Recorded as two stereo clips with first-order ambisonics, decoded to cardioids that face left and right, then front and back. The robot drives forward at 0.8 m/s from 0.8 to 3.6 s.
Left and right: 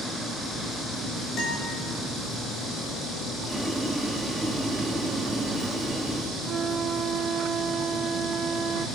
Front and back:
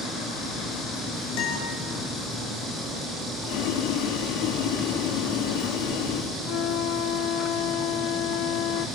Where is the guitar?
30° left, 4.5 m; by 1.7 s 35° left, 4.5 m.